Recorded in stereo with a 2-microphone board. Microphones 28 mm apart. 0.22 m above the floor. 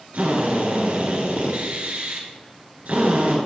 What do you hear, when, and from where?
0.1 s a drill: 70° right (ahead or behind), 3 m